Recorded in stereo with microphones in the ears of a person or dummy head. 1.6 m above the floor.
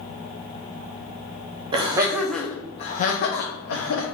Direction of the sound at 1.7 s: 25° right (ahead or behind).